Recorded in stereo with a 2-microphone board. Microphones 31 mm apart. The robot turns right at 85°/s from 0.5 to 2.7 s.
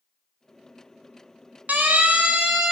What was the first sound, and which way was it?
A siren, 65° right (ahead or behind).